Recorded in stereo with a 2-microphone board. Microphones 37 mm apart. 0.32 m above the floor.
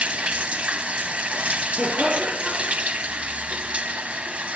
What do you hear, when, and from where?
0.0 s running water: 35° right (ahead or behind), 0.7 m
1.8 s laughter: 15° right (ahead or behind), 7 m